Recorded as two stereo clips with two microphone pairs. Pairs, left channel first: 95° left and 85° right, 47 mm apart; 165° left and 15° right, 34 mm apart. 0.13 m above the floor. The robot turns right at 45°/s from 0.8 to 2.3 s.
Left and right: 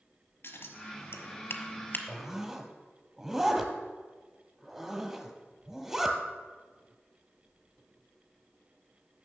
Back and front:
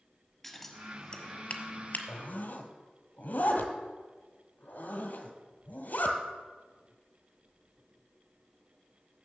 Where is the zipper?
170° right, 1.3 m; by 6.2 s 160° right, 1.3 m.